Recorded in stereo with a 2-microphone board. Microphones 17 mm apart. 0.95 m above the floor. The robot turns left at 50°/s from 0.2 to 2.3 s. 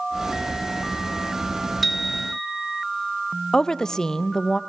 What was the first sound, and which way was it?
A bicycle bell, centre (ahead or behind).